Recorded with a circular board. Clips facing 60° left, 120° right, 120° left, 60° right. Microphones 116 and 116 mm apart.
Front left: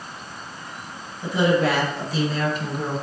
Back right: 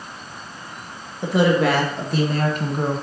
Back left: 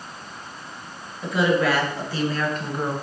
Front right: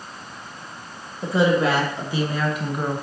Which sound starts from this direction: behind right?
A woman speaking, at 1.2 s.